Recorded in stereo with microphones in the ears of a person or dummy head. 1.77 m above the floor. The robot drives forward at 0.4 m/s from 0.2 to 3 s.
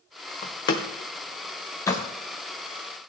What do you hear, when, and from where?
0.4 s a door slam: 25° left (ahead or behind), 0.7 m; by 2.0 s 15° left (ahead or behind), 1.1 m